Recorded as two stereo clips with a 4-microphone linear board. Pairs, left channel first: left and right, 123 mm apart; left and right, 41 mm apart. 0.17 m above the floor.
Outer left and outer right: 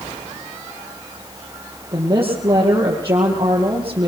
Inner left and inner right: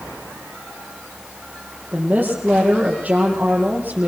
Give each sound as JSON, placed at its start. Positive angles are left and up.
{"t": 1.9, "sound": "a woman speaking", "side_deg": -30, "distance_m": 6.0}